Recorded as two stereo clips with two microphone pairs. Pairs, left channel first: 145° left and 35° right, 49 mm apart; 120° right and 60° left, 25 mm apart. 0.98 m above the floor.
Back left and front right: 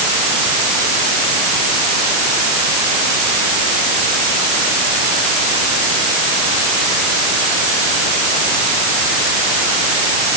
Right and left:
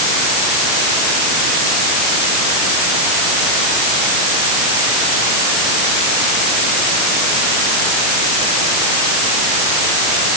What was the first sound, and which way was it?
Only background noise.